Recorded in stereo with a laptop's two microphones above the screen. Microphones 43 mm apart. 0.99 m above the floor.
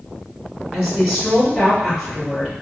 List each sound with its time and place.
0.7 s a woman speaking: 15° right (ahead or behind), 1.4 m